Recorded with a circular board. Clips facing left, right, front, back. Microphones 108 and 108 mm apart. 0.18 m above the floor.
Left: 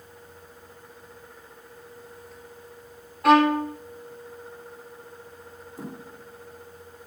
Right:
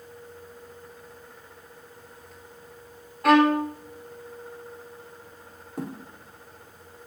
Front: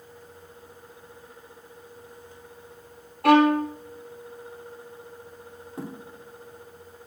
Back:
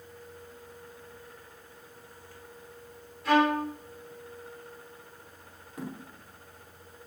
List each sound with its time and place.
3.2 s a violin: straight ahead, 2.5 m
5.8 s a thud: 60° right, 5.5 m